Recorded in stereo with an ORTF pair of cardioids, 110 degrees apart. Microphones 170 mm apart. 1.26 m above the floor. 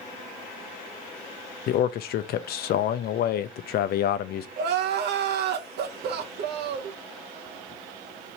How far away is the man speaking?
About 0.6 m.